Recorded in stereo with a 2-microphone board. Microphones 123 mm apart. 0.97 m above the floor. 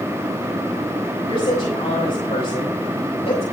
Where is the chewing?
I don't hear chewing.